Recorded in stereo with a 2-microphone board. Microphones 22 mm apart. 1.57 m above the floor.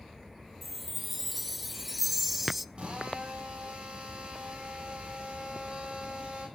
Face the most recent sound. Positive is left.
turn(degrees=-50)  # may be behind; listen again after turning